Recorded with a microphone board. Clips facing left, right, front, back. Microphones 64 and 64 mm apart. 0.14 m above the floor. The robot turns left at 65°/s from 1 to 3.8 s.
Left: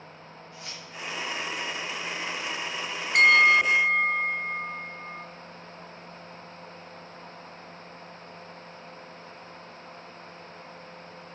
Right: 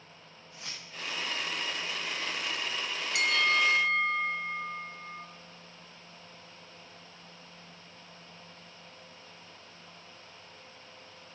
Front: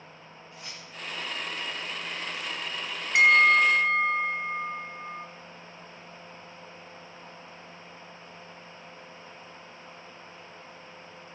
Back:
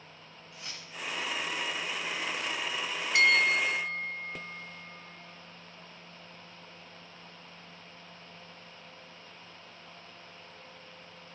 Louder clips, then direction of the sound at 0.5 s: Left 2 dB, even; 70° right.